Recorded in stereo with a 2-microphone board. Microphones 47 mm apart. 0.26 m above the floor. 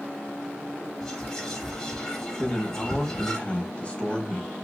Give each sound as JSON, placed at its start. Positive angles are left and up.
{"t": 1.0, "sound": "whispering", "side_deg": 15, "distance_m": 1.3}
{"t": 2.4, "sound": "a man speaking", "side_deg": 30, "distance_m": 1.0}